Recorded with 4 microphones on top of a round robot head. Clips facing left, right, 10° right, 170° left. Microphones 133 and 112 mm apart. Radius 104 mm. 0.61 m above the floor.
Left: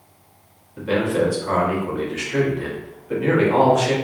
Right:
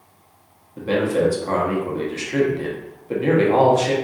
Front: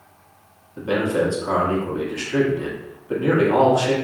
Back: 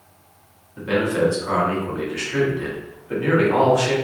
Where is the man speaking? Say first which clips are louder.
Right 1 dB, back 1 dB; 60° right, 1.0 m.